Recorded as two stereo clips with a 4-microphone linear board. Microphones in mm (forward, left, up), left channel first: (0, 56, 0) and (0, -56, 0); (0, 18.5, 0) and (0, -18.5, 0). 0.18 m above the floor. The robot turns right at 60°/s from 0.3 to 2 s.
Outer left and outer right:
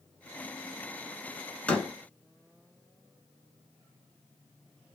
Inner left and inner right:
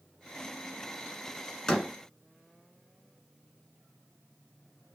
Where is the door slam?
10° left (ahead or behind), 1.1 m; by 1.9 s centre (ahead or behind), 1.1 m.